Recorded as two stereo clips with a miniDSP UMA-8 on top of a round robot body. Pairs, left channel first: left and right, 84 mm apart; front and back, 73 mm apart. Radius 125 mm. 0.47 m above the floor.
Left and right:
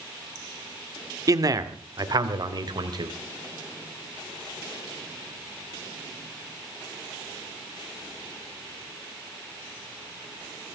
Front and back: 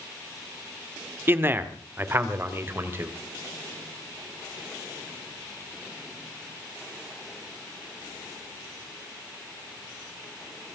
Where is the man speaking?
125° right, 1.8 m.